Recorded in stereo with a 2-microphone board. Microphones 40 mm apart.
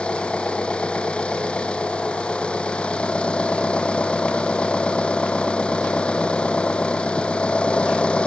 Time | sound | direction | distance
0.0 | an engine running | 30° left (ahead or behind) | ?